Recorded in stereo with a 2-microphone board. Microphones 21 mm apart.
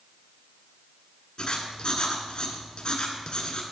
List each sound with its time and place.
1.4 s writing: 45° left (ahead or behind), 1.4 m